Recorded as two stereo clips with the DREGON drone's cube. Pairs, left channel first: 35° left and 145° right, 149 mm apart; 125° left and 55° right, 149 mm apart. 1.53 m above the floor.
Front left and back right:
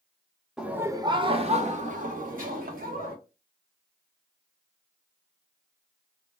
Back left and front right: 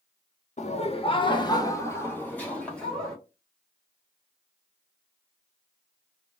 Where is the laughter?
130° left, 0.6 m; by 3.2 s 150° right, 1.5 m.